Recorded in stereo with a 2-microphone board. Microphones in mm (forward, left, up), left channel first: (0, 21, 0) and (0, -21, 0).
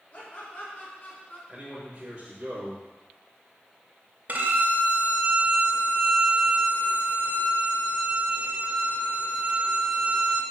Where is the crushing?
I don't hear crushing.